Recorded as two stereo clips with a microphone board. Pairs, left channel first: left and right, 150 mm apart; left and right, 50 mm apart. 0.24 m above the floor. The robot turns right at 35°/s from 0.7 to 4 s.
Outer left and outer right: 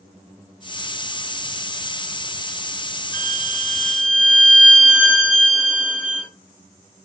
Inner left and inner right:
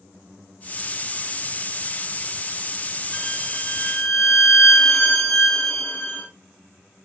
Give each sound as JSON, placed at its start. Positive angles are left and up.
{"t": 3.1, "sound": "a violin", "azimuth_deg": 45, "distance_m": 1.7}